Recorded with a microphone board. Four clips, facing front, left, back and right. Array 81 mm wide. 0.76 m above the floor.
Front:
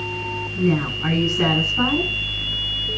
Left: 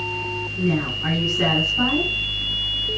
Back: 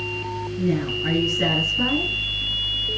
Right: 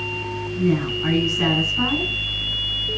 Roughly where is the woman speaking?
Ahead.